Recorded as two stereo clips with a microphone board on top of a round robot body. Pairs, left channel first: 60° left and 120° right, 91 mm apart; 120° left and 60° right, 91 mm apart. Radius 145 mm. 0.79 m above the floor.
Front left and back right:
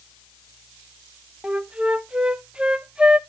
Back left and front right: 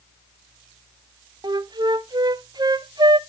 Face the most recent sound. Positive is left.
turn(degrees=-45)